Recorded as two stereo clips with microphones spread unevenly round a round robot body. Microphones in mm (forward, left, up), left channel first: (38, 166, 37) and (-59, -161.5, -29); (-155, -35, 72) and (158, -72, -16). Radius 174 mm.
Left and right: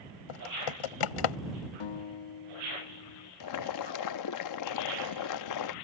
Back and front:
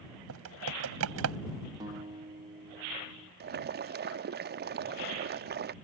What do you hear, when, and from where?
0.3 s typing on a keyboard: 50° left
1.8 s a guitar: 60° left
3.4 s boiling: 35° left